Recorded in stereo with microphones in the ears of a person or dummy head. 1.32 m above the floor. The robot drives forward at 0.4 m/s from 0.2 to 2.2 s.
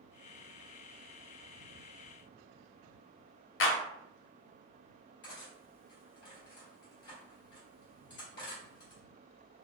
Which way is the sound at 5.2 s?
55° left (ahead or behind).